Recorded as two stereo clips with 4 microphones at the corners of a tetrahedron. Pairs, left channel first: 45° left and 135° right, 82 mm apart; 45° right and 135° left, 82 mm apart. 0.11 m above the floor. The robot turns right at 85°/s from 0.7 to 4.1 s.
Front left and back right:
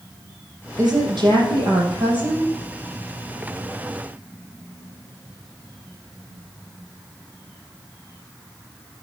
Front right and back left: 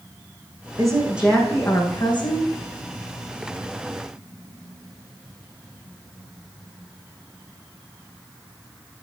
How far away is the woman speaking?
About 4.5 m.